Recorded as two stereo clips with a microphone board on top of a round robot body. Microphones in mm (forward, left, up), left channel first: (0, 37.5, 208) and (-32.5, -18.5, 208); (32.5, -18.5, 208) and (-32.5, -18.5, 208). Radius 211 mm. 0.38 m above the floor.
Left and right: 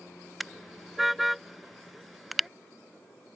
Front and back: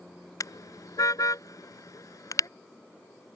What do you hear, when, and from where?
0.4 s a car horn: 30° right